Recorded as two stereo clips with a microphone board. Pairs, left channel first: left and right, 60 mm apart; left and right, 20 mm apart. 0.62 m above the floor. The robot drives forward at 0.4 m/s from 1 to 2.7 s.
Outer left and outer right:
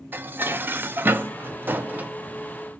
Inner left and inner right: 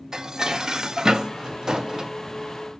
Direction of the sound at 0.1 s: 35° right (ahead or behind).